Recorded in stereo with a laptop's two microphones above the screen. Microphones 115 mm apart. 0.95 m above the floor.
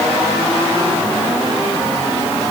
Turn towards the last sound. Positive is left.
No sound to turn to.